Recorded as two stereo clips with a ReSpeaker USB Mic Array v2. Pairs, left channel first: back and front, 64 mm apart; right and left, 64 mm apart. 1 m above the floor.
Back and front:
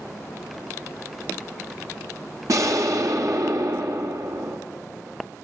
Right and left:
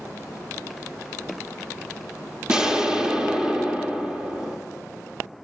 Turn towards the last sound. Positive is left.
turn(degrees=15)